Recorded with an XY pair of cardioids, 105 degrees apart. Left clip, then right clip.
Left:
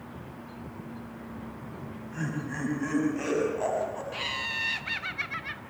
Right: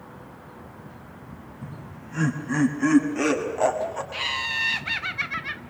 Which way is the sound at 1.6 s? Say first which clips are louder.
Even; 45° right.